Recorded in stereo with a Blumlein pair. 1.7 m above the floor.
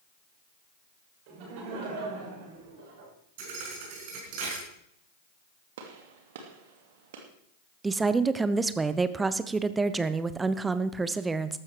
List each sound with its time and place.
1.3 s laughter: 45° right, 7 m; by 3.1 s 55° right, 7 m
3.4 s a thud: 45° right, 5 m
5.8 s a gunshot: 55° right, 2.5 m
7.8 s a woman speaking: 10° right, 0.9 m